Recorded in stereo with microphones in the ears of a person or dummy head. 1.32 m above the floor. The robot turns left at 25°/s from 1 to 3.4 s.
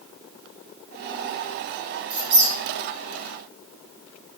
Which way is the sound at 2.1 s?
65° right (ahead or behind).